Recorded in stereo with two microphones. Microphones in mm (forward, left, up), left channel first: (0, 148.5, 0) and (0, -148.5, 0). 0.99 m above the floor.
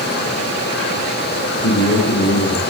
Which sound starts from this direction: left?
A man speaking, at 1.6 s.